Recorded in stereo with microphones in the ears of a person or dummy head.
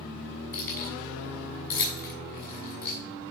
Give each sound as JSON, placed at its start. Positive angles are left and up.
{"t": 0.5, "sound": "keys jangling", "side_deg": 15, "distance_m": 7.0}